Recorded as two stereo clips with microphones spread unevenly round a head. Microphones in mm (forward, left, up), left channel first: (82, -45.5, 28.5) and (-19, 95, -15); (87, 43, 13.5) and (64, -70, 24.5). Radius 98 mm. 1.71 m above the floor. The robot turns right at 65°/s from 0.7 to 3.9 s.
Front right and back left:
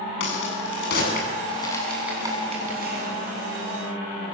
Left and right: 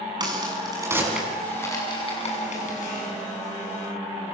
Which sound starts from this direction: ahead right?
A crack, at 0.2 s.